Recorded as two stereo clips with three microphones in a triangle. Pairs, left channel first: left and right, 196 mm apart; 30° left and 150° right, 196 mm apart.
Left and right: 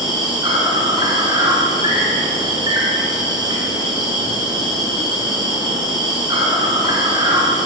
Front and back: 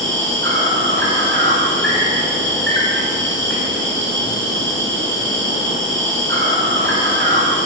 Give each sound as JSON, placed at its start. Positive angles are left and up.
{"t": 0.0, "sound": "an insect", "azimuth_deg": -160, "distance_m": 8.5}